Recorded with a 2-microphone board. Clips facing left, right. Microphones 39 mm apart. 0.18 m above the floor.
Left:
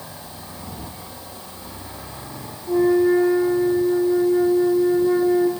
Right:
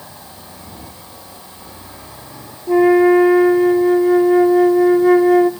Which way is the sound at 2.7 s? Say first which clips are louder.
Right 6 dB; 75° right (ahead or behind).